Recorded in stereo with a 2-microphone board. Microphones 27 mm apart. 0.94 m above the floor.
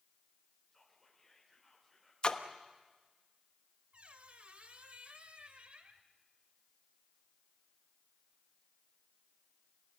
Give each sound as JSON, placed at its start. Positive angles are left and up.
{"t": 0.7, "sound": "whispering", "side_deg": 0, "distance_m": 4.0}
{"t": 2.2, "sound": "a splash", "side_deg": 35, "distance_m": 1.1}
{"t": 3.9, "sound": "a squeak", "side_deg": -50, "distance_m": 1.7}